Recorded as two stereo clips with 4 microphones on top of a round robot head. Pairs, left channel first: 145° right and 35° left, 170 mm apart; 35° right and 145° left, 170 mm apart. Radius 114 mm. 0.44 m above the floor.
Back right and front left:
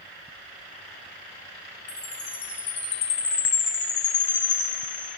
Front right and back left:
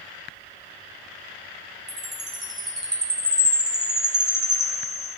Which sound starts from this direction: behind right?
A chime, at 1.9 s.